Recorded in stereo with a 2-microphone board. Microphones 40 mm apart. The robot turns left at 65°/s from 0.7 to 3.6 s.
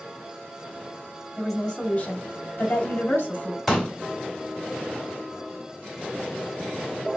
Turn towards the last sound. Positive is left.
turn(degrees=10)  # may be behind; listen again after turning